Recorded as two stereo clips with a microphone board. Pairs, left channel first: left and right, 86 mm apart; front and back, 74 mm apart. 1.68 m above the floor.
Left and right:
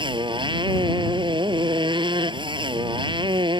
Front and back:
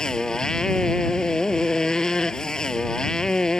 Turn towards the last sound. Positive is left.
turn(degrees=-80)